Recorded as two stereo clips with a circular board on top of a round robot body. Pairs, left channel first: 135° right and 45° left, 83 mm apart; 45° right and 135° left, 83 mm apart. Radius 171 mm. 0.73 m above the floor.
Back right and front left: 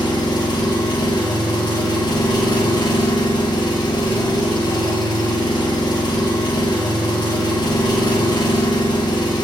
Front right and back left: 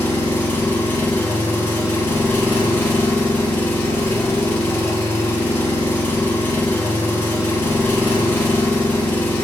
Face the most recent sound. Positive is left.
turn(degrees=-110)